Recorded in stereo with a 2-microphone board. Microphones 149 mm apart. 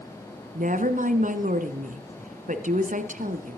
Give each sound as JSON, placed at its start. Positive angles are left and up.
{"t": 0.6, "sound": "a woman speaking", "side_deg": -55, "distance_m": 1.8}